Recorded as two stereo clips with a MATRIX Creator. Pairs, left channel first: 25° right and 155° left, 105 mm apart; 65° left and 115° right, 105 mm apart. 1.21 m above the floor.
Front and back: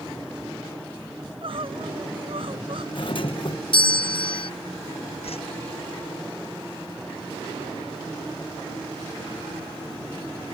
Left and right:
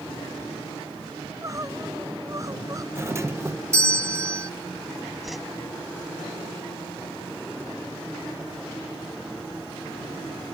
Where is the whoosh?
25° right.